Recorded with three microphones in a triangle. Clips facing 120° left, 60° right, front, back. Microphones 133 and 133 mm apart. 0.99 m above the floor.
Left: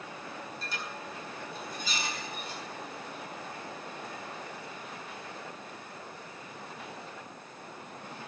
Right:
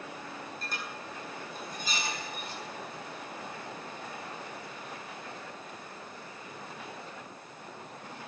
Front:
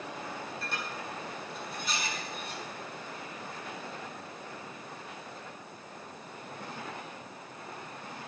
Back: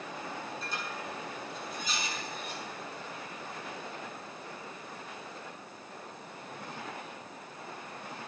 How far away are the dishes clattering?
About 8 m.